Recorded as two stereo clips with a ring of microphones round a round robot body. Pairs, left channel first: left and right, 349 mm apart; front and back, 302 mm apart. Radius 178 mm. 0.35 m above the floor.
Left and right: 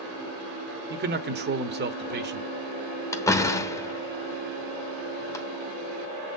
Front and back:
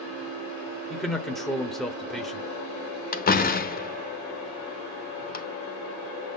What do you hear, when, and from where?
0.9 s a man speaking: 90° right, 1.0 m
3.1 s a door slam: 15° left, 1.0 m